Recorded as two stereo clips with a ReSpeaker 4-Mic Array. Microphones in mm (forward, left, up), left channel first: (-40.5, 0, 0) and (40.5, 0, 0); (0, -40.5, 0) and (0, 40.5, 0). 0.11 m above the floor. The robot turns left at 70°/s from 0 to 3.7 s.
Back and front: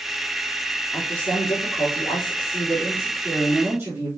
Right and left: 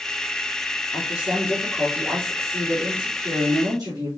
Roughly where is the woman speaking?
Right.